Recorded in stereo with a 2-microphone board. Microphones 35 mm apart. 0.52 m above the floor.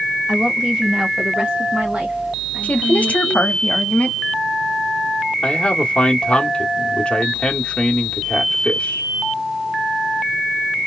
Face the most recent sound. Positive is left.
turn(degrees=30)  # may be behind; listen again after turning